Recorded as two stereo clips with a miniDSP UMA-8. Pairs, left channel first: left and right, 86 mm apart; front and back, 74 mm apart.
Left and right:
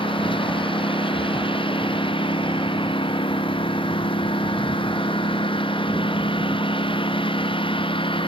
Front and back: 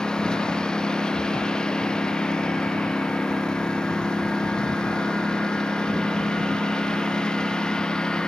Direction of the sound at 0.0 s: 80° left.